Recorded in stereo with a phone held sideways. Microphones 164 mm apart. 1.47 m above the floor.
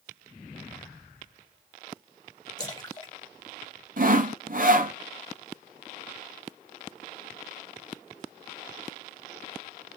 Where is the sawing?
55° right (ahead or behind), 0.7 m.